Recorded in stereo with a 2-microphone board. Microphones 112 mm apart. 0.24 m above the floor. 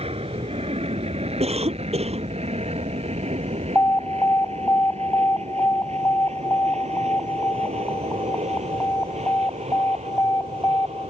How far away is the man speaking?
No man speaking in this recording.